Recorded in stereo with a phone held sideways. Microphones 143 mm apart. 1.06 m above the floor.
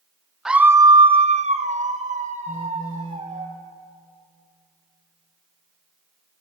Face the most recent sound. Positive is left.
turn(degrees=35)  # may be behind; listen again after turning